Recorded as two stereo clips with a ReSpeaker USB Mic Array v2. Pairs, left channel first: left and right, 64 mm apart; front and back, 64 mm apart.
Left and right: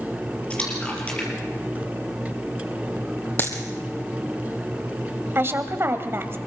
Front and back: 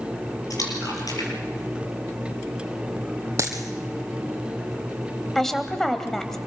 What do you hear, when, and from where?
0.5 s a splash: 20° left, 5 m
3.4 s a dropped coin: 145° left, 2 m
5.3 s a woman speaking: 80° right, 1.7 m